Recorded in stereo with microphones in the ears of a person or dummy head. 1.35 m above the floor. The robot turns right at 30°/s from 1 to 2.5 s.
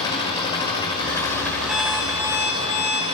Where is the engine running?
160° left, 5.5 m; by 3.1 s 155° right, 5.5 m.